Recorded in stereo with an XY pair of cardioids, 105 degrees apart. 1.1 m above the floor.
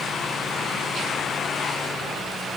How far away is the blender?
No blender in this recording.